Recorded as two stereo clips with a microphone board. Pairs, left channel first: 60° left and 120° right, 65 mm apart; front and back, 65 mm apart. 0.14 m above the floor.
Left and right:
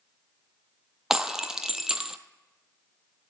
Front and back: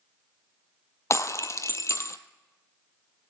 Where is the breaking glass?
40° right, 0.7 m.